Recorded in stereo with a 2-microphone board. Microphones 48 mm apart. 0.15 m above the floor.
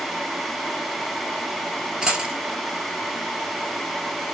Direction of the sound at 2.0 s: 15° right (ahead or behind).